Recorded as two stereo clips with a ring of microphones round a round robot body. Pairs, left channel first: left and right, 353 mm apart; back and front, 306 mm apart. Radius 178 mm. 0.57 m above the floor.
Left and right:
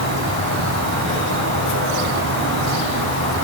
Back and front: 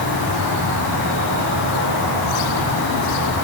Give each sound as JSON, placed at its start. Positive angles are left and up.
{"t": 0.0, "sound": "an insect", "azimuth_deg": -35, "distance_m": 9.5}